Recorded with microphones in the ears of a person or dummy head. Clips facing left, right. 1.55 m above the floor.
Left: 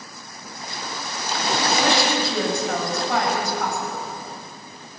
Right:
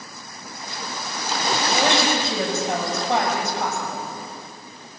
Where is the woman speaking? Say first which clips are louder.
Even; 20° right (ahead or behind), 7.5 m.